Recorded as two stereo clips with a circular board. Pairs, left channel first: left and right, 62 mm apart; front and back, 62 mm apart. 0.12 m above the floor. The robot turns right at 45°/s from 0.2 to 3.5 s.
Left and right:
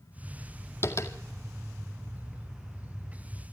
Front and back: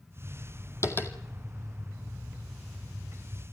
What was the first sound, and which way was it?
Tapping, 40° left.